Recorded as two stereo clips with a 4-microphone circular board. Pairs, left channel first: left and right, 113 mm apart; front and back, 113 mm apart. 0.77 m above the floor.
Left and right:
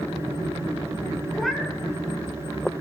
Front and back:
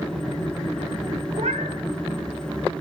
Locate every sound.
1.3 s a cat meowing: straight behind, 0.6 m